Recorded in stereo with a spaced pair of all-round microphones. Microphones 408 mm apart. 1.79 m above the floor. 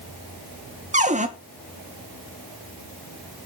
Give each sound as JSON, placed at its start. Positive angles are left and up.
{"t": 0.9, "sound": "a cupboard door", "side_deg": -20, "distance_m": 1.2}